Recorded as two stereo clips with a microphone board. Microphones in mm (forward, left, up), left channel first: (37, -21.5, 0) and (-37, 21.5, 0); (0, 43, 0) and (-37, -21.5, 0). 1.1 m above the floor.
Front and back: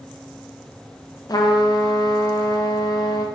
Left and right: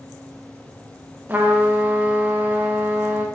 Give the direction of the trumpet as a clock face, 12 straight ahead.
2 o'clock.